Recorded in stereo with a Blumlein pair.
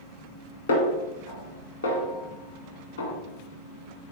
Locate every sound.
0.7 s a snare drum: 65° left, 1.8 m